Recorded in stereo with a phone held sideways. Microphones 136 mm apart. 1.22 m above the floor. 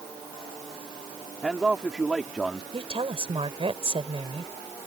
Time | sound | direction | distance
1.4 | a man speaking | 5° right (ahead or behind) | ?
2.7 | a woman speaking | 45° right (ahead or behind) | ?